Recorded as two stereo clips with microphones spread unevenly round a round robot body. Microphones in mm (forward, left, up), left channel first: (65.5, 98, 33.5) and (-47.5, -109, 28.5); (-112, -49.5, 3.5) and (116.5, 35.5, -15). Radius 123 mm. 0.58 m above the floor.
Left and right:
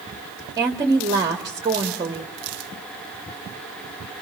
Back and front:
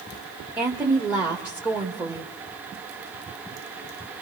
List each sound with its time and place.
0.6 s a woman speaking: 55° right, 1.5 m